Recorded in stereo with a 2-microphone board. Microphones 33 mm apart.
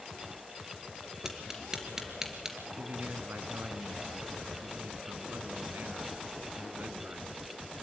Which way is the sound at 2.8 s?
70° right (ahead or behind).